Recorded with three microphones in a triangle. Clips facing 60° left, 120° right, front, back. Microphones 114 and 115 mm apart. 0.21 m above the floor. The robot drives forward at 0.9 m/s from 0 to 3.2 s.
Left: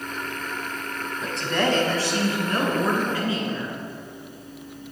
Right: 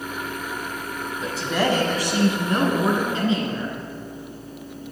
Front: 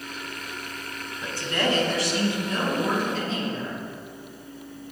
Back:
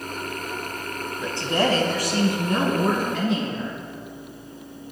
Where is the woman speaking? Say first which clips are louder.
Right 1 dB, back 4 dB; 145° left, 1.0 m; by 3.8 s 175° left, 2.5 m.